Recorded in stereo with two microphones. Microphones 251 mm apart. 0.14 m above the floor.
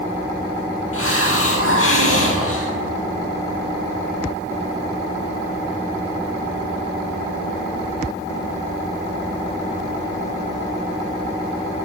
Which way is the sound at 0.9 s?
60° left (ahead or behind).